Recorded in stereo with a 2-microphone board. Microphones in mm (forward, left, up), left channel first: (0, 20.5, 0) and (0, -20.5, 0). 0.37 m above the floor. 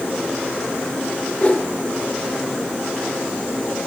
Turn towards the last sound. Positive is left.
turn(degrees=30)  # may be behind; listen again after turning